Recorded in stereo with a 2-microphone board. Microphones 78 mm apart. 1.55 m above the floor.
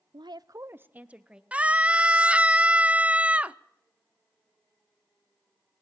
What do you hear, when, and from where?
0.1 s a woman speaking: 80° right, 0.5 m; by 1.4 s 10° right (ahead or behind), 1.5 m
1.5 s a scream: 20° right (ahead or behind), 0.6 m